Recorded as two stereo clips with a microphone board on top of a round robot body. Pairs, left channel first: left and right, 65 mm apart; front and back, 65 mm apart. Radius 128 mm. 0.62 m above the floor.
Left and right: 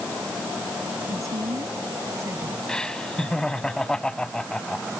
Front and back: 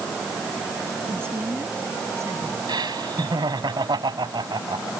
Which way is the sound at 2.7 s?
170° left.